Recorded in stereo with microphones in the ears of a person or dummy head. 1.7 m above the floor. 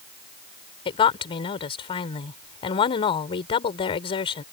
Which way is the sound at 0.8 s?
30° left (ahead or behind).